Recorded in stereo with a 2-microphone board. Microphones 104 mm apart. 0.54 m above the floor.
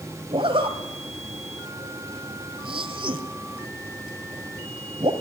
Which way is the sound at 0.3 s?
55° right (ahead or behind).